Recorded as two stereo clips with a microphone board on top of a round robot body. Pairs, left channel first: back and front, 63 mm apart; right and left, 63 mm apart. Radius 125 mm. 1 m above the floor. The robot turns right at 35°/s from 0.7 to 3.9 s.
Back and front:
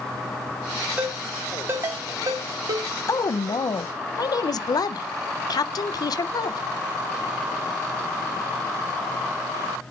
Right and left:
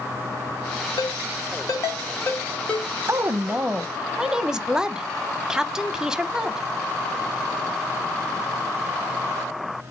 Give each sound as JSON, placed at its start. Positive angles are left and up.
{"t": 1.0, "sound": "a ringtone", "azimuth_deg": -75, "distance_m": 1.6}
{"t": 3.1, "sound": "a woman speaking", "azimuth_deg": 145, "distance_m": 0.6}